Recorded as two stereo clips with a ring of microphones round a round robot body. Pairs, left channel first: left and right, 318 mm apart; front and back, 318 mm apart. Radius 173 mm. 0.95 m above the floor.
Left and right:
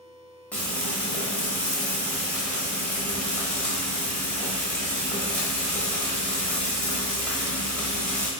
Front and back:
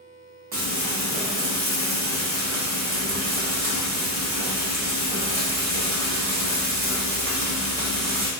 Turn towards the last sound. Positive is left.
turn(degrees=175)